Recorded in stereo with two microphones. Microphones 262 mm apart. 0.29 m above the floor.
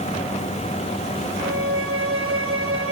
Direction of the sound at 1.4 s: 55° right (ahead or behind).